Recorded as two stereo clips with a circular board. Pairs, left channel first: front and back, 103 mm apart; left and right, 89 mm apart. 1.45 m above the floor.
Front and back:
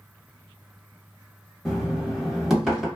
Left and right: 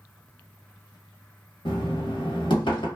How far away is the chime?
No chime in this recording.